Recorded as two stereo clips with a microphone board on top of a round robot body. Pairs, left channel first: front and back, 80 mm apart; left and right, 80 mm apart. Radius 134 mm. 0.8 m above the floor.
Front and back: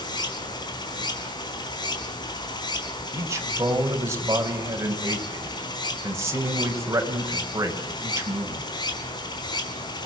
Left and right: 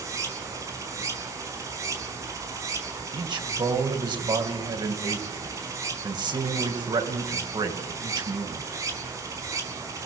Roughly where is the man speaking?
Behind right.